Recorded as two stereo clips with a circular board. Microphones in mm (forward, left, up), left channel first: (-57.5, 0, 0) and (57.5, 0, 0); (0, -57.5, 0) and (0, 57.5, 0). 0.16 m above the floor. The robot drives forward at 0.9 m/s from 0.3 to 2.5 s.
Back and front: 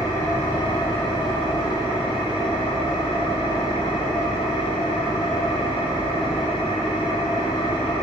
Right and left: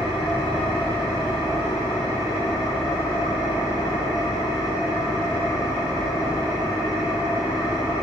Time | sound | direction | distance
0.0 | an engine running | 125° right | 4 m